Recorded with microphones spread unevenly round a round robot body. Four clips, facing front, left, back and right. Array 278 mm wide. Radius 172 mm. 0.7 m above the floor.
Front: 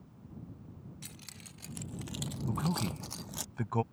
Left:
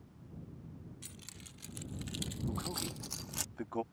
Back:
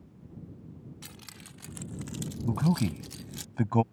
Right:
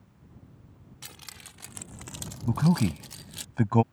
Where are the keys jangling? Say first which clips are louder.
Right 4 dB, back 3 dB; 85° right; by 3.5 s 10° left.